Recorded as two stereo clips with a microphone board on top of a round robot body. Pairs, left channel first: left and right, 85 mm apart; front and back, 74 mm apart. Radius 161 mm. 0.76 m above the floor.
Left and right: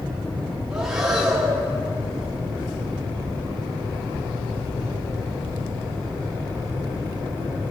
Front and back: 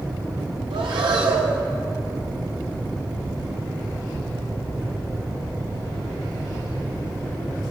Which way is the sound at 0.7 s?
175° right.